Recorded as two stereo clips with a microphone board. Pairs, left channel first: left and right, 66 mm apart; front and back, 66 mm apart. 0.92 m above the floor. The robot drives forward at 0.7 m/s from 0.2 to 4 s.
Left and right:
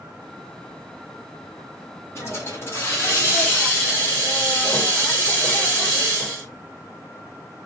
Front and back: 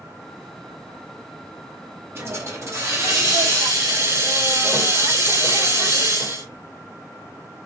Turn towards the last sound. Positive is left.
turn(degrees=155)